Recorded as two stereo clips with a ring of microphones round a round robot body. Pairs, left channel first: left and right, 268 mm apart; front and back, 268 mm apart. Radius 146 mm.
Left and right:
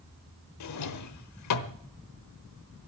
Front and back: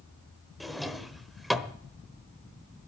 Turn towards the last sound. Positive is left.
turn(degrees=90)